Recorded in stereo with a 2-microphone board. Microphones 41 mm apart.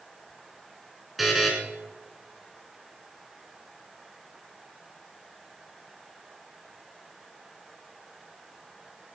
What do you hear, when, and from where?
1.2 s a buzzer: 5° right (ahead or behind), 2.5 m